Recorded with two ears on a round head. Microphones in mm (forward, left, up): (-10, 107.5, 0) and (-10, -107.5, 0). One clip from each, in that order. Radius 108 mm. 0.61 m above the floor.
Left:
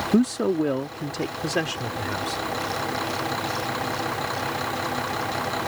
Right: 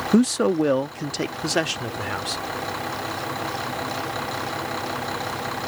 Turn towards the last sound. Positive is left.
turn(degrees=-25)  # may be behind; listen again after turning